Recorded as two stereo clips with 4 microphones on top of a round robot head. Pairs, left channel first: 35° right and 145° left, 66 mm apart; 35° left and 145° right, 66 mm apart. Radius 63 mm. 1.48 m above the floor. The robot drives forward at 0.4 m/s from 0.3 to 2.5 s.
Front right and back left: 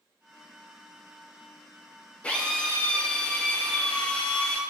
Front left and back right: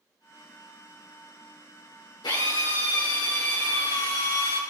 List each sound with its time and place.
2.2 s a drill: 35° left, 6 m